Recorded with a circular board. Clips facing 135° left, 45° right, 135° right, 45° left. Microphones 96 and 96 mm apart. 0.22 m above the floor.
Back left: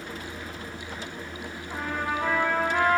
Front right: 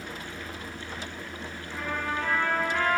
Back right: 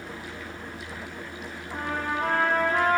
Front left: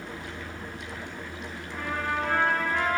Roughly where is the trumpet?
Behind.